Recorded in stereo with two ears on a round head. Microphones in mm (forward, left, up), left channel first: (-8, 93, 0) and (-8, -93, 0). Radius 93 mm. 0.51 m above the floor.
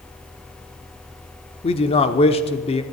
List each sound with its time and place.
1.6 s a man speaking: 30° left (ahead or behind), 0.9 m